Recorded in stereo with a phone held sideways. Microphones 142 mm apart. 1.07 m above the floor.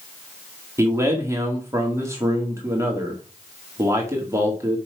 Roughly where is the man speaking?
Centre.